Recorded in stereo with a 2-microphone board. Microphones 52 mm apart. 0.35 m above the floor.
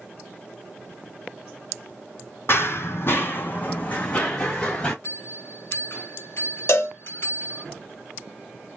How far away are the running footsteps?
About 0.6 m.